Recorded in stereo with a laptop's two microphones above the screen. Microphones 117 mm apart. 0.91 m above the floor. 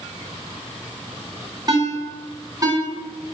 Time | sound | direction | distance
1.7 | a ringtone | 35° right (ahead or behind) | 1.4 m